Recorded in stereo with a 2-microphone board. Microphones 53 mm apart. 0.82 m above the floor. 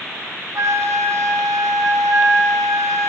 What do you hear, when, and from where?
0.6 s a flute: 85° right, 2.5 m